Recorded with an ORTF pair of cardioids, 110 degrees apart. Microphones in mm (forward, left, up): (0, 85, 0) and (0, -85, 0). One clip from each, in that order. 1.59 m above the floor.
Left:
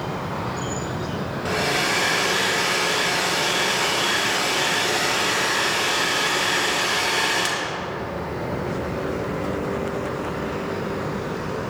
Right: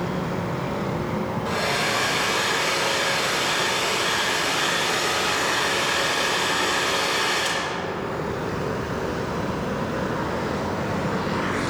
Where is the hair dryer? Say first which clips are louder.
Left 2 dB; 70° left, 3.5 m.